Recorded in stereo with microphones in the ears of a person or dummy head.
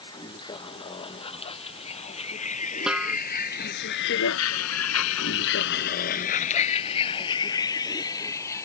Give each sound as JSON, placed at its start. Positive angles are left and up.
{"t": 0.0, "sound": "a vehicle", "side_deg": 25}
{"t": 2.9, "sound": "a snare drum", "side_deg": -5}